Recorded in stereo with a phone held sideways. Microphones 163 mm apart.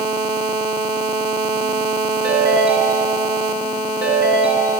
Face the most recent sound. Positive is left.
turn(degrees=85)